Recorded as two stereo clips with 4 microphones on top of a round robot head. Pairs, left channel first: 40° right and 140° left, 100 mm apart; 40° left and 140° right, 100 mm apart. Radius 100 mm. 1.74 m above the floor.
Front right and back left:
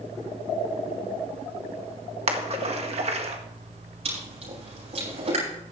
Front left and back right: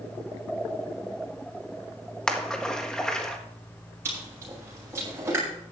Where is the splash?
125° left, 1.7 m.